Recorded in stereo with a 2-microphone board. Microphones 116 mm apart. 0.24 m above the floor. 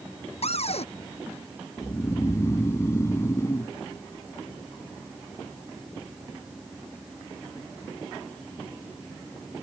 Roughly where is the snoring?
Left.